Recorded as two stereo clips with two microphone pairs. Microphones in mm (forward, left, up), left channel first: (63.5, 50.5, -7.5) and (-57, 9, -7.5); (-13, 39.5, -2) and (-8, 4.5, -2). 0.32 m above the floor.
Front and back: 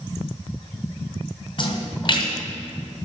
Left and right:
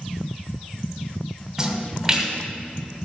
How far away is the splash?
About 2 m.